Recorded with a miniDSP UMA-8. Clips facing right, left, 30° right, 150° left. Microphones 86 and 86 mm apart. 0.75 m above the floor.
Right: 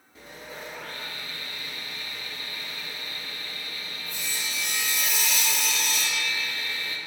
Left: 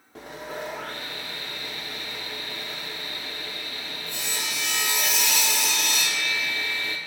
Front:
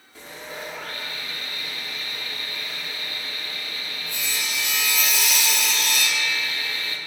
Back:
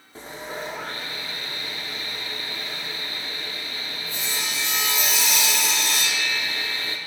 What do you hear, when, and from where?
0.1 s sawing: 95° left, 1.5 m